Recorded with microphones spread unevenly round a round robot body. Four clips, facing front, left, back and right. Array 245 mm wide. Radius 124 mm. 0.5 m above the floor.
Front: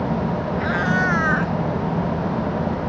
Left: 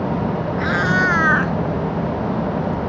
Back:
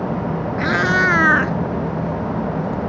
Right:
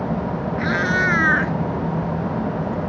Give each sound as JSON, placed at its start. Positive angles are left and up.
{"t": 0.6, "sound": "a cat meowing", "azimuth_deg": 175}